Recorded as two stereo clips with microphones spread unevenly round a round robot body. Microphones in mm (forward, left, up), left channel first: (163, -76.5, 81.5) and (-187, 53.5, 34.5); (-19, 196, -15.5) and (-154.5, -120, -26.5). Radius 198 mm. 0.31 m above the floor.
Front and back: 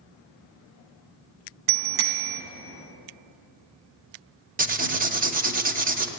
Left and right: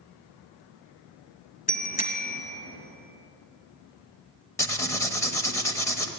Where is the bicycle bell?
135° left, 2.5 m.